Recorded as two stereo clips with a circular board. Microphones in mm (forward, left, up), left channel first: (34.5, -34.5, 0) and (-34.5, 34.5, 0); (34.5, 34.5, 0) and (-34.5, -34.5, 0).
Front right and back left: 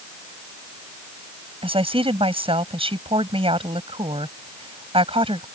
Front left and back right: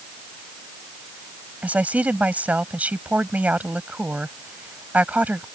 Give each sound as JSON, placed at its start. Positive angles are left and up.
{"t": 1.6, "sound": "a woman speaking", "azimuth_deg": 150}